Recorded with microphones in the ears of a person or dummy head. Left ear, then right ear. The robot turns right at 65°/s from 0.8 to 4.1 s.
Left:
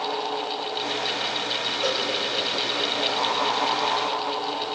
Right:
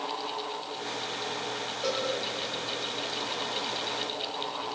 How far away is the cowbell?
About 6 m.